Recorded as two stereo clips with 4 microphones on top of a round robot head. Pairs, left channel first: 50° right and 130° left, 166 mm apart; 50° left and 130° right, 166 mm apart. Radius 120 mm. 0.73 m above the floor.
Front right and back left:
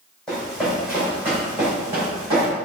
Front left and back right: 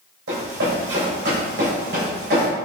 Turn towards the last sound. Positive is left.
turn(degrees=-160)